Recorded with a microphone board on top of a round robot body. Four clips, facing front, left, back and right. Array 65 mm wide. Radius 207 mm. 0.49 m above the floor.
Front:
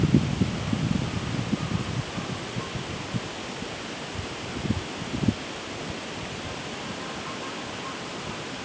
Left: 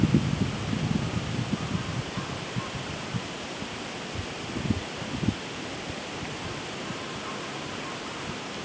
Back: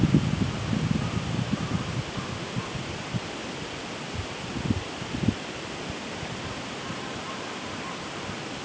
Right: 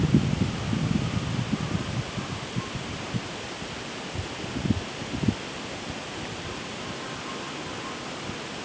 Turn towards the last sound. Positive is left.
No sound to turn to.